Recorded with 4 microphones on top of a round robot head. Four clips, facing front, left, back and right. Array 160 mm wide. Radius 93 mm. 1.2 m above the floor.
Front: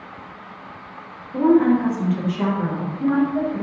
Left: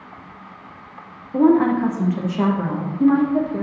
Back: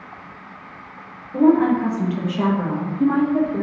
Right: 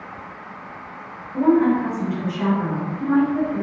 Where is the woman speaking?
95° left, 1.0 m; by 3.6 s 130° left, 1.8 m.